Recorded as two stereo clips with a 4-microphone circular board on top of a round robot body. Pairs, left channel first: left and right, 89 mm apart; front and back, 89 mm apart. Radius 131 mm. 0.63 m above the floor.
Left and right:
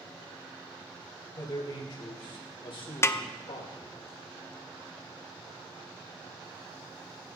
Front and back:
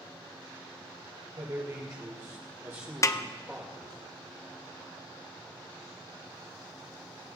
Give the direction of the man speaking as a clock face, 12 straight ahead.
8 o'clock.